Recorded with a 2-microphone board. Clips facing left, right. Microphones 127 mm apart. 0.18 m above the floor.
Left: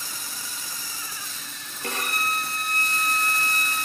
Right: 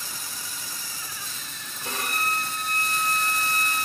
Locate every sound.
1.8 s a violin: 65° left (ahead or behind), 4 m